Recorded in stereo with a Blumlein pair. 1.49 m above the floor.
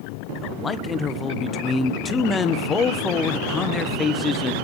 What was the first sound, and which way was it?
A man speaking, 20° left.